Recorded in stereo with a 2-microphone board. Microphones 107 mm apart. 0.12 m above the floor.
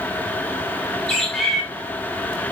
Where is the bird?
5° left (ahead or behind), 6 m.